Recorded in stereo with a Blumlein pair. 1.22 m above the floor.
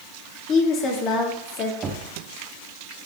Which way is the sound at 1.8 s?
15° right.